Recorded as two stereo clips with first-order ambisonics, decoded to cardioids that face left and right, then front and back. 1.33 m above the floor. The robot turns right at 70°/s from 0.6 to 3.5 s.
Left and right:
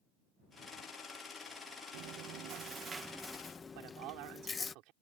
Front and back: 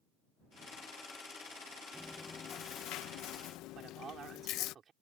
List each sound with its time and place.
1.9 s chewing: 90° right; by 4.8 s 20° left
3.8 s a man speaking: 115° right